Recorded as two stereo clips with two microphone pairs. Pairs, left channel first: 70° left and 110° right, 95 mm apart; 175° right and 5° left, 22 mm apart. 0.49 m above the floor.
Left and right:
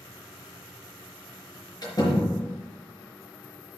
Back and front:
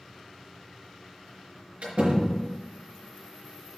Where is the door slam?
25° left, 4.5 m.